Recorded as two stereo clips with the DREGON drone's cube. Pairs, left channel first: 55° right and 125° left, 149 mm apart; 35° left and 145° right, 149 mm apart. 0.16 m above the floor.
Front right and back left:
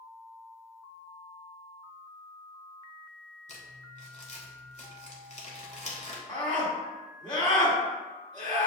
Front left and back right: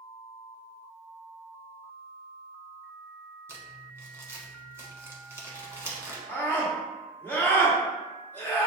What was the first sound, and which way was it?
Crumpling, 75° right.